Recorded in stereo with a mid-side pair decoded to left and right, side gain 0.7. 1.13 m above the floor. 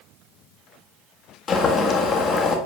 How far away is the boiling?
About 1.5 m.